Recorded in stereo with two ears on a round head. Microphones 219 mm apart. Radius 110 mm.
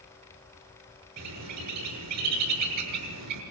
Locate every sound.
1.2 s a bird: 80° right, 6 m